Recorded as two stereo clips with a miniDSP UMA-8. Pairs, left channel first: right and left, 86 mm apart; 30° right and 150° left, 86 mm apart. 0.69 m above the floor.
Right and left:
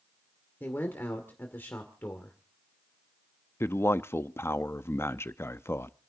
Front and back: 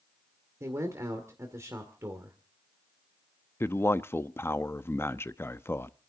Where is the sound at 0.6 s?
155° right, 1.9 m.